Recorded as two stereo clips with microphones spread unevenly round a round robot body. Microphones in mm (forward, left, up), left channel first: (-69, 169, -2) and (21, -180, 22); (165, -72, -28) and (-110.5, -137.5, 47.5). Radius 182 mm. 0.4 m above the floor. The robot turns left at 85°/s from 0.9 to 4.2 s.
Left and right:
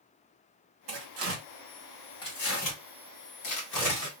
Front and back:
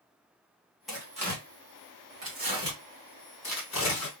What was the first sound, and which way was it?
Tearing paper, 70° right.